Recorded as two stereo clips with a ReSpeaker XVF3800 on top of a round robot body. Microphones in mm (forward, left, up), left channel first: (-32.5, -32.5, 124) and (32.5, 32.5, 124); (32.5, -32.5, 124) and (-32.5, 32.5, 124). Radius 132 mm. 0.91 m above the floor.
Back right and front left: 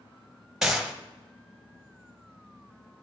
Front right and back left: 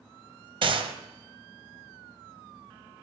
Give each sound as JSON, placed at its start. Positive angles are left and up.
{"t": 0.6, "sound": "a gunshot", "azimuth_deg": 130, "distance_m": 1.0}